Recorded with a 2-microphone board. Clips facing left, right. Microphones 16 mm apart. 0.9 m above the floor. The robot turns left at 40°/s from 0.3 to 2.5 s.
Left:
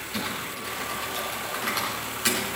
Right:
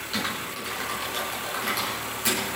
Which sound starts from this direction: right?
Typing on a keyboard, at 0.1 s.